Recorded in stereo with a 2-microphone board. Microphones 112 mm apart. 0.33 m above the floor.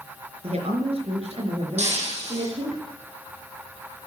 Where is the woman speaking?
65° right (ahead or behind), 4 m.